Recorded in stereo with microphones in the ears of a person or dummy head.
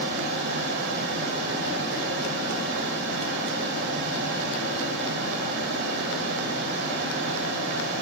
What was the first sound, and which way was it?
A fan, 60° right (ahead or behind).